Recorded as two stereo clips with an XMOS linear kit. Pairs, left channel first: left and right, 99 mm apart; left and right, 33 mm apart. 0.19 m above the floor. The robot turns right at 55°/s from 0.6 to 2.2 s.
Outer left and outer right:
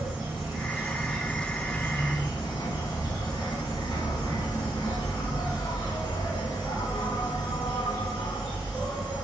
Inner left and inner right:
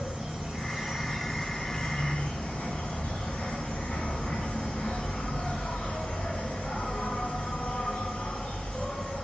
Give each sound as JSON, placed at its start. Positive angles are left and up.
{"t": 0.0, "sound": "an insect", "azimuth_deg": -25, "distance_m": 1.6}